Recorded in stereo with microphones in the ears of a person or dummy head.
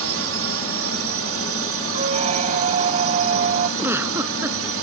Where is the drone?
65° right (ahead or behind); by 4.8 s 60° right (ahead or behind).